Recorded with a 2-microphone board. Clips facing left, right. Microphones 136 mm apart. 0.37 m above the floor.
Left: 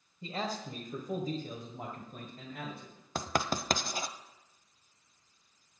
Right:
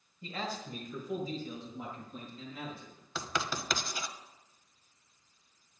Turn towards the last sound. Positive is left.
turn(degrees=45)  # may be behind; listen again after turning